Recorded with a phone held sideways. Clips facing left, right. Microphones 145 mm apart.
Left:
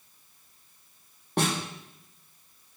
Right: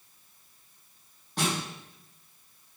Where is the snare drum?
65° left (ahead or behind), 8.5 m.